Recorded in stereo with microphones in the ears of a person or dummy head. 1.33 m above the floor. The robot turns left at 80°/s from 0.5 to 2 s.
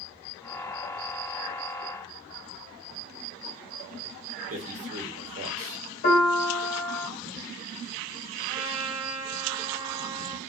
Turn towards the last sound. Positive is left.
turn(degrees=-30)  # may be behind; listen again after turning